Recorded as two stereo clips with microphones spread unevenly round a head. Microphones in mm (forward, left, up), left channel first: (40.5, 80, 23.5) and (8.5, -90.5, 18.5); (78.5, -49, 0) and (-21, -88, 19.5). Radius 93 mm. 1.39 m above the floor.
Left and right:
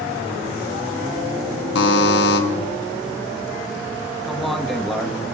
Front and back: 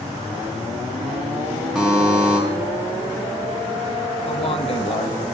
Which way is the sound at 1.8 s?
110° left.